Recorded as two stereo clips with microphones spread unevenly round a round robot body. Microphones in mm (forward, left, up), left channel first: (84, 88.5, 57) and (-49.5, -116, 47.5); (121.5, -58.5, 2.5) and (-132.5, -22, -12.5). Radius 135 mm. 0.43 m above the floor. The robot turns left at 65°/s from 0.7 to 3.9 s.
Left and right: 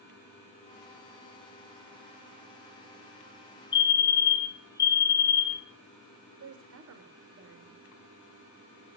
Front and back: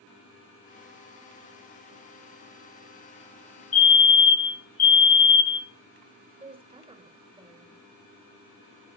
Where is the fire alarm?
15° left, 1.7 m; by 5.7 s straight ahead, 1.7 m.